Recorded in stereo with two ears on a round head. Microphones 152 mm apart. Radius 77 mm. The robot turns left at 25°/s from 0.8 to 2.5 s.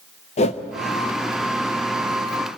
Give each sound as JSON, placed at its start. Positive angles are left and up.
{"t": 0.4, "sound": "a whoosh", "side_deg": 40, "distance_m": 0.8}